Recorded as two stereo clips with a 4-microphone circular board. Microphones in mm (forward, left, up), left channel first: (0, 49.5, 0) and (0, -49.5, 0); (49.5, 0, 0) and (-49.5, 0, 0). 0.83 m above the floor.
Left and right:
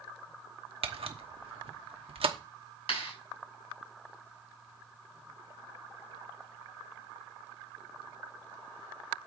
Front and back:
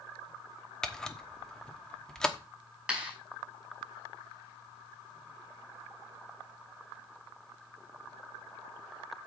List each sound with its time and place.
0.8 s a camera shutter: 85° right, 1.1 m
2.9 s a clap: 100° left, 5.5 m